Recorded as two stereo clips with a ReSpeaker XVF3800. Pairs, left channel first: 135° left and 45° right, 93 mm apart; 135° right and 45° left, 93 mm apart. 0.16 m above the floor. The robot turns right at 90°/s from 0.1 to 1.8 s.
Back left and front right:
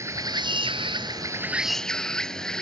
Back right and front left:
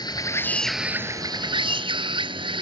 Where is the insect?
100° right; by 2.6 s 55° left.